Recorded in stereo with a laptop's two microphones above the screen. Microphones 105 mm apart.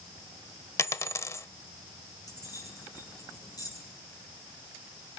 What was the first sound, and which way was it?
A dropped coin, 30° left (ahead or behind).